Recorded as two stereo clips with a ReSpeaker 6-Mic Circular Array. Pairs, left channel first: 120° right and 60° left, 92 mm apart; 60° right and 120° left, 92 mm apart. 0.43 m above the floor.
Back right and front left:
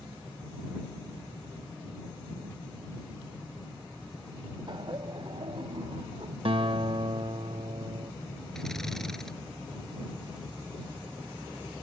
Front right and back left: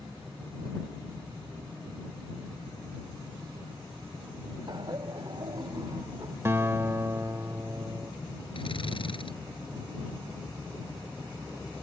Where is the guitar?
60° left.